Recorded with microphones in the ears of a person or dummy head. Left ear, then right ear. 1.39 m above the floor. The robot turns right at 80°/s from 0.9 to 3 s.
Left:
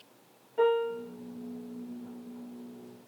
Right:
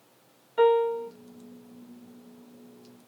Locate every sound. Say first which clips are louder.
0.6 s a piano: right 5 dB; 45° right (ahead or behind), 0.8 m; by 1.1 s 30° right (ahead or behind), 0.8 m